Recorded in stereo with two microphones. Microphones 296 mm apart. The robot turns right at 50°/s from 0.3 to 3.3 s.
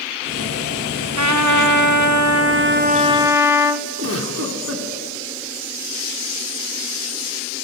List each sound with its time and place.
1.2 s a trumpet: 115° right, 0.7 m; by 3.9 s 10° right, 0.7 m
4.0 s a giggle: 50° right (ahead or behind), 1.7 m